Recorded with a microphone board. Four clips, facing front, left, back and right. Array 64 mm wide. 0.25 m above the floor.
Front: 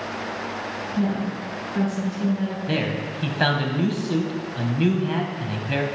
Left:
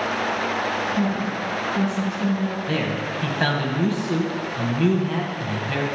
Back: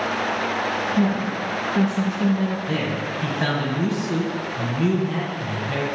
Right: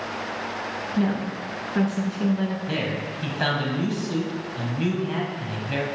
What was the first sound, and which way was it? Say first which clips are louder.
A woman speaking: left 2 dB, even; 110° right.